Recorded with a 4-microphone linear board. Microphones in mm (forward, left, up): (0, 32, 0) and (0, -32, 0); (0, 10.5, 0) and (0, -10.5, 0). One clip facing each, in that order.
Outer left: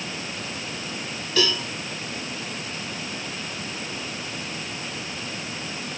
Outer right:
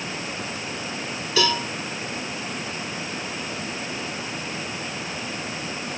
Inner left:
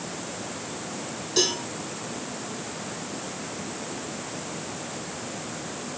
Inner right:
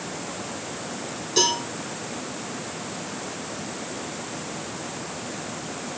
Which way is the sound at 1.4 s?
5° right (ahead or behind).